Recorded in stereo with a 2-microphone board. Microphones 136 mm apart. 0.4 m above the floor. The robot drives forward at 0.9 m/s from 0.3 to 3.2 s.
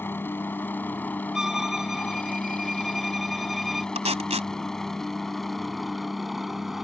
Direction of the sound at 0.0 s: 15° left (ahead or behind).